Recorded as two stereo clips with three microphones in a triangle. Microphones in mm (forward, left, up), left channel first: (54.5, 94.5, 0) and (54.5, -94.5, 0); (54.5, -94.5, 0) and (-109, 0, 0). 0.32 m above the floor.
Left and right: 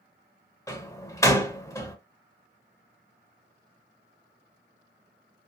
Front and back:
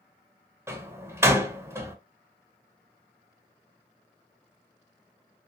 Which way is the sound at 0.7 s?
110° left.